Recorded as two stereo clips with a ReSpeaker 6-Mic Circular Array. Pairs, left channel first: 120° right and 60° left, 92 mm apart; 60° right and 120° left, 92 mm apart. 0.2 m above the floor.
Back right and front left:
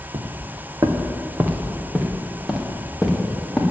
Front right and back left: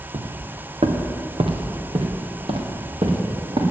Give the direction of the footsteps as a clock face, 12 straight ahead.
9 o'clock.